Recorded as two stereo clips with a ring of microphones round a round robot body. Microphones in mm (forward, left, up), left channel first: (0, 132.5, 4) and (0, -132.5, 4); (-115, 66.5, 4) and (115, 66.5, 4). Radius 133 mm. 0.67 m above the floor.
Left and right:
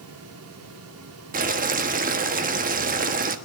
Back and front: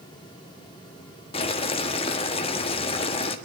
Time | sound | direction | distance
1.3 | boiling | 125° right | 1.3 m